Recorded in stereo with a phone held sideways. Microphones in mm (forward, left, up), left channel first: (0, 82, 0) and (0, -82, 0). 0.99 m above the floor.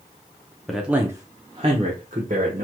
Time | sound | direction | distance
0.7 | a man speaking | centre (ahead or behind) | 0.6 m